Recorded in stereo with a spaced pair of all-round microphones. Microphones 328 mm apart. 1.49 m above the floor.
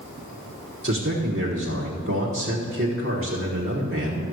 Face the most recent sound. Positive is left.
turn(degrees=-40)  # may be behind; listen again after turning